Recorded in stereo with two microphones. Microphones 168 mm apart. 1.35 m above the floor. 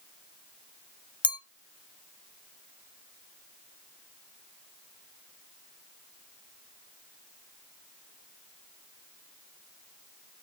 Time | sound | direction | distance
1.2 | a clink | 30° left (ahead or behind) | 0.6 m